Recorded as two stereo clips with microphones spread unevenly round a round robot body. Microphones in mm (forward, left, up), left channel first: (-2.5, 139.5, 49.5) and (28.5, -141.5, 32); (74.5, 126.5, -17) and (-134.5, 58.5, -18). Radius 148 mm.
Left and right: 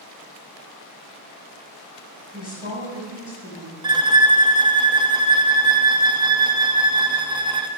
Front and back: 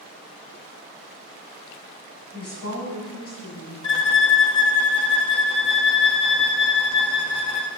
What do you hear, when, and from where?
2.3 s a woman speaking: 35° left, 5.5 m; by 3.7 s 25° left, 5.5 m
3.8 s a violin: 35° right, 0.8 m